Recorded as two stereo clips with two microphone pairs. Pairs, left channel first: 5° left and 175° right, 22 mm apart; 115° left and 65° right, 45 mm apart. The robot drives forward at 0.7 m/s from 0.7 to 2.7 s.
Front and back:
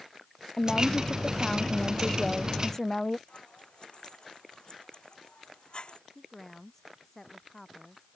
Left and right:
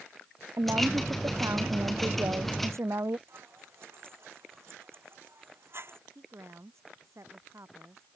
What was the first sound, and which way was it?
A woman speaking, 55° right.